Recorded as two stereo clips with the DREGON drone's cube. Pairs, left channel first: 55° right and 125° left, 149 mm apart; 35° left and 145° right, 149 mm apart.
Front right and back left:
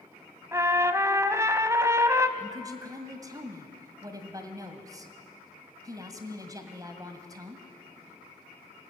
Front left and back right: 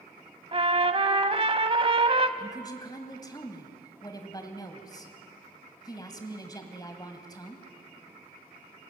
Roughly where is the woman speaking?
Left.